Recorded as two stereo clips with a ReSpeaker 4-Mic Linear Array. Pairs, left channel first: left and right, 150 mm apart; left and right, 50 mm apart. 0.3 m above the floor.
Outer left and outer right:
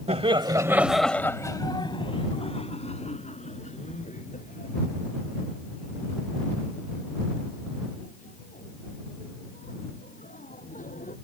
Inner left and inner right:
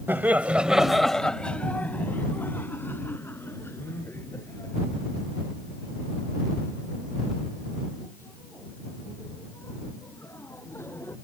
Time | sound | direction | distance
0.1 | laughter | 45° right (ahead or behind) | ?